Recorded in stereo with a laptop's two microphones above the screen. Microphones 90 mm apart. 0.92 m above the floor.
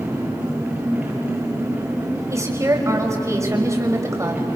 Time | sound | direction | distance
0.0 | an engine running | 15° right (ahead or behind) | 7 m
2.3 | a woman speaking | 35° right (ahead or behind) | 5.5 m